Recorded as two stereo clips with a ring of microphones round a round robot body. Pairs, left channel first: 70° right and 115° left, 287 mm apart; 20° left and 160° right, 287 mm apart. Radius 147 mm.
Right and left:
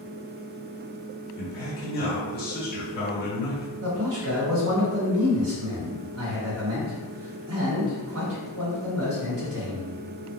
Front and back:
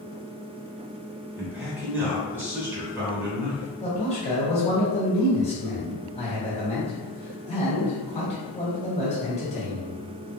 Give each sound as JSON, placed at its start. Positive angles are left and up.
{"t": 1.4, "sound": "a man speaking", "azimuth_deg": -80, "distance_m": 1.2}
{"t": 3.8, "sound": "a man speaking", "azimuth_deg": 85, "distance_m": 1.4}